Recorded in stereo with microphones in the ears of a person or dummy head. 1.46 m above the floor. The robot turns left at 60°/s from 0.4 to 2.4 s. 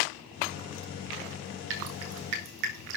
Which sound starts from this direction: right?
Dripping, at 1.7 s.